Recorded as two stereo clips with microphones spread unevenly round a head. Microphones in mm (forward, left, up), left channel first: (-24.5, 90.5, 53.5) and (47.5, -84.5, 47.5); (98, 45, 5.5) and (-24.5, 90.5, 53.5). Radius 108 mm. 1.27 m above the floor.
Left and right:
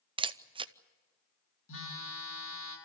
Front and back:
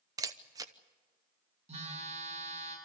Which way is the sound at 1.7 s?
130° left.